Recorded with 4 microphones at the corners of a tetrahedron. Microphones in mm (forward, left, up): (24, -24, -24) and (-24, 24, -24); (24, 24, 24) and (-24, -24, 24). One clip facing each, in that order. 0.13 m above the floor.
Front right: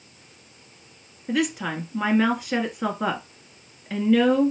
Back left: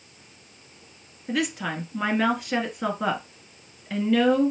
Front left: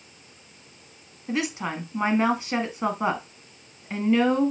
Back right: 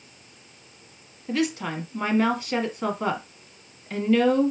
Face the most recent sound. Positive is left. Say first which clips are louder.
# front right 2 dB, back right 2 dB
turn(degrees=35)